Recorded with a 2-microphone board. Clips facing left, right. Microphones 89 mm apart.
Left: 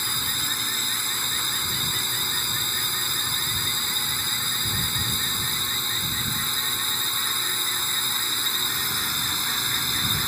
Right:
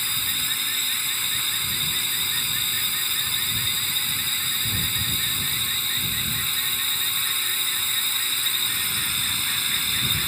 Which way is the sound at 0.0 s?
20° left (ahead or behind).